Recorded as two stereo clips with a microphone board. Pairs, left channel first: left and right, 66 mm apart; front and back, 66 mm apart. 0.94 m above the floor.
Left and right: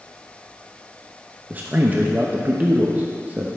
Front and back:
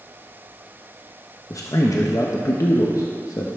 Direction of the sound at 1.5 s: 30° right.